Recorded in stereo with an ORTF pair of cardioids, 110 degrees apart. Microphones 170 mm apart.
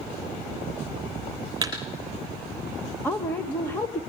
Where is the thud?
20° right, 6 m.